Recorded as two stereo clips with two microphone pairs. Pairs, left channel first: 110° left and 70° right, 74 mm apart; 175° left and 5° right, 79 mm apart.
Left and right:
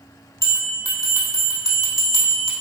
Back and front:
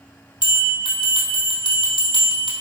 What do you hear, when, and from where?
0.4 s a bell: 160° left, 1.5 m